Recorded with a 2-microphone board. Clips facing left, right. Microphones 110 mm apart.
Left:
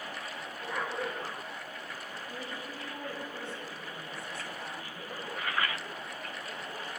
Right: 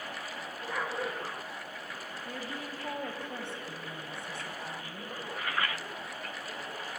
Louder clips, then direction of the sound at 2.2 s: Right 3 dB; 75° right (ahead or behind).